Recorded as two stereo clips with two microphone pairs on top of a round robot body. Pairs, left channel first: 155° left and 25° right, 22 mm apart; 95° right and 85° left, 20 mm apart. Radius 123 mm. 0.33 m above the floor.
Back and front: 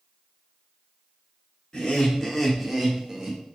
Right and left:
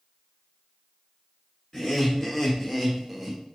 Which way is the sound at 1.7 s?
140° right.